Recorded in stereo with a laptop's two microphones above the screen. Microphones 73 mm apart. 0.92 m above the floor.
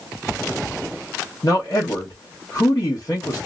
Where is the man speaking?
50° left (ahead or behind), 1.0 m.